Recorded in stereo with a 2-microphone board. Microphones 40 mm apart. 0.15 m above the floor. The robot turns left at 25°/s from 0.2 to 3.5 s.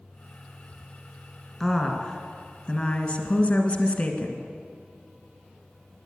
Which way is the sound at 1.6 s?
175° left.